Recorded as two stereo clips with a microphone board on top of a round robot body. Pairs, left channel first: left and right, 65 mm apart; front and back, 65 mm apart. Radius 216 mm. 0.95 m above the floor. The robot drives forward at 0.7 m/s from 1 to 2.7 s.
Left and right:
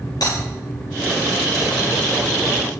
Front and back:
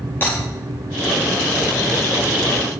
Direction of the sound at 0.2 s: 65° left.